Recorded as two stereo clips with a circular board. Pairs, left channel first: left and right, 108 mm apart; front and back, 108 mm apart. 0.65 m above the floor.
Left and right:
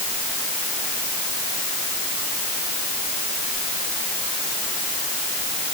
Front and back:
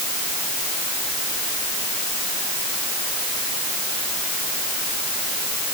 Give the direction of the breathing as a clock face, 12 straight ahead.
I don't hear breathing.